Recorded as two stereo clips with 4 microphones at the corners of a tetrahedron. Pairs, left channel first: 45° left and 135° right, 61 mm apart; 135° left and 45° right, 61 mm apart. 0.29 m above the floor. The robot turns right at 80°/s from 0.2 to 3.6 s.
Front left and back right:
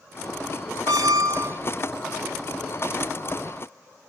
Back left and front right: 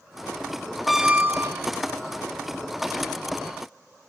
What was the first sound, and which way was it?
A squeak, 135° right.